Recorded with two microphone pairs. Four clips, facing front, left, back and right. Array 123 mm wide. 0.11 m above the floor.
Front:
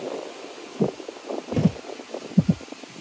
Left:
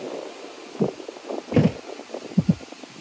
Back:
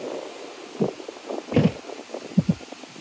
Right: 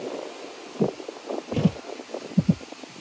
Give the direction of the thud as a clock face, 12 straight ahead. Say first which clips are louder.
Left 5 dB, back 3 dB; 8 o'clock.